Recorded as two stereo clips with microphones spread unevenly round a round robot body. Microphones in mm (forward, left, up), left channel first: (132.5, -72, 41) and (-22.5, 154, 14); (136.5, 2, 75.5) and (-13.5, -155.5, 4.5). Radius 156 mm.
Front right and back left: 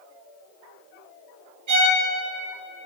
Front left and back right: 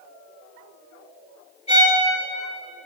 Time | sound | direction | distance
1.7 | a violin | 125° left | 3 m